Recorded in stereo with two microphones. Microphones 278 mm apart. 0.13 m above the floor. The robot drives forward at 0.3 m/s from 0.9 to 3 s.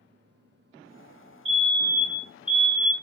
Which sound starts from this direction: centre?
A fire alarm, at 1.4 s.